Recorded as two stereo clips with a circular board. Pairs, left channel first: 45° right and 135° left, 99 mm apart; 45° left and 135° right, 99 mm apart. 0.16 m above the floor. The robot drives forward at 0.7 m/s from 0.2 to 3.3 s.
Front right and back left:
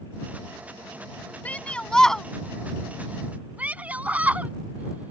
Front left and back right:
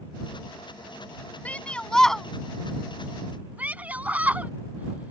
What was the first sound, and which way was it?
A shout, straight ahead.